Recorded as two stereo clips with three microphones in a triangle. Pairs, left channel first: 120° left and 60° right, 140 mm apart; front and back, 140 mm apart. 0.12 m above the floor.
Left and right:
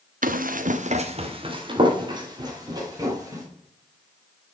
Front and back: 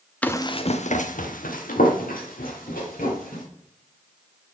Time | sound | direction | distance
0.2 | running footsteps | 80° right | 0.9 m